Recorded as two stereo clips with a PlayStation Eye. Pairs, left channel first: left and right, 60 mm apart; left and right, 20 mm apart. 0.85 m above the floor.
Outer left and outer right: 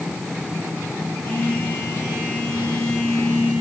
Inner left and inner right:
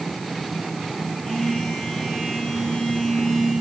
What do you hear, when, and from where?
1.2 s a phone buzzing: 40° left (ahead or behind), 6.5 m